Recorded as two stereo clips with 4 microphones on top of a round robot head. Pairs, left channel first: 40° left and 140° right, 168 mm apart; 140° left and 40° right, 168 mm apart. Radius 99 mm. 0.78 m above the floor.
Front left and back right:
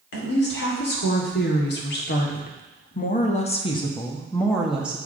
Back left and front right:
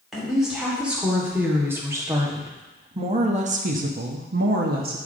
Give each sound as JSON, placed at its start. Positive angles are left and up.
{"t": 0.1, "sound": "a woman speaking", "azimuth_deg": 45, "distance_m": 2.0}